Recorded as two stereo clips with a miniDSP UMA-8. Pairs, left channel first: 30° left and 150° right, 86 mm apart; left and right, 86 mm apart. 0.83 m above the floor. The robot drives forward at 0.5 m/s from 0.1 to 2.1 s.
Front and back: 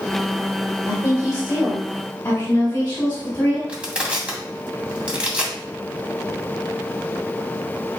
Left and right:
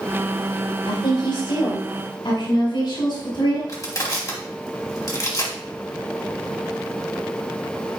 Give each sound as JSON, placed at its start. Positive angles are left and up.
{"t": 0.9, "sound": "a woman speaking", "azimuth_deg": 90, "distance_m": 4.0}
{"t": 3.7, "sound": "crushing", "azimuth_deg": 135, "distance_m": 2.0}